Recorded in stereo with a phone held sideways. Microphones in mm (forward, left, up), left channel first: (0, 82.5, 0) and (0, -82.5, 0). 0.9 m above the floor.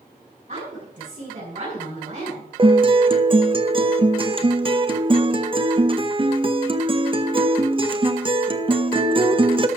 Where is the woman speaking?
50° right (ahead or behind), 6 m.